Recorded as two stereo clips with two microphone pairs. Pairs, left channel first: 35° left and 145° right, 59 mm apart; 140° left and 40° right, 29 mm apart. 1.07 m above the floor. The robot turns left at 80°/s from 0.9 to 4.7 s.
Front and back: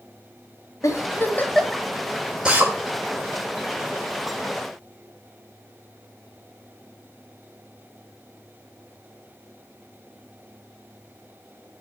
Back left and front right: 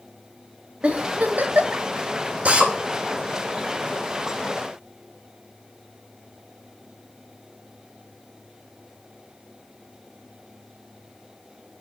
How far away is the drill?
About 3 m.